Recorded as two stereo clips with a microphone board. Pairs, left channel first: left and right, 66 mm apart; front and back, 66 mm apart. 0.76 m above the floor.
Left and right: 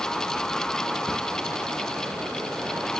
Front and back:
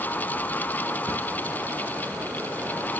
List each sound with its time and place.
1.1 s a cupboard door: 175° right, 1.4 m